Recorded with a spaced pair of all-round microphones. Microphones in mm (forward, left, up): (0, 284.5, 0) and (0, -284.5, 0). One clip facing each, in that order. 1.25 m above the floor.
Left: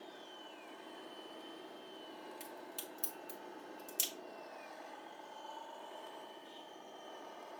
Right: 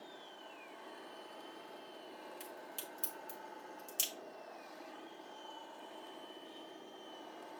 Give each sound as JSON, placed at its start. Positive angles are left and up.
{"t": 2.4, "sound": "a crack", "side_deg": -40, "distance_m": 1.5}